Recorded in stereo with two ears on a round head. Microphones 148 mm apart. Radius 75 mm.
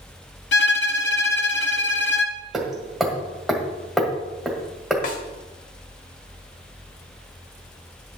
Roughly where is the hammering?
Centre.